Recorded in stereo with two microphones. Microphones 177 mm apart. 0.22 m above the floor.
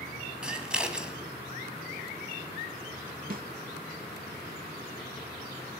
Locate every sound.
0.4 s scissors: 5° right (ahead or behind), 1.8 m
3.3 s a snare drum: 55° right (ahead or behind), 0.6 m